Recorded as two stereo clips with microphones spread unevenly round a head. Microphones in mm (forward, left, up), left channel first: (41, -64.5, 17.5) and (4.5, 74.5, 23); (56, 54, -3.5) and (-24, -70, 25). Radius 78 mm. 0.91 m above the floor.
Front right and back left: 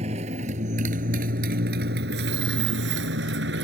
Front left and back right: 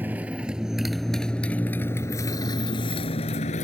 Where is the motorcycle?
160° left; by 3.6 s 105° left.